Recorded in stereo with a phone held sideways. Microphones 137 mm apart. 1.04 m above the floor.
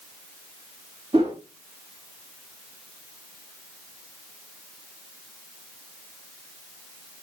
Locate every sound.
1.1 s a whoosh: 40° right (ahead or behind), 3 m